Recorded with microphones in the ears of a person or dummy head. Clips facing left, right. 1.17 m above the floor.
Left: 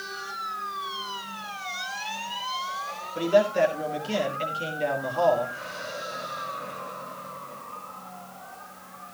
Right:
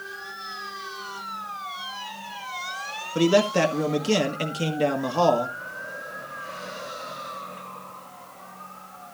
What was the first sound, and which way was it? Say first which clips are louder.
A man speaking: right 1 dB; 65° right (ahead or behind).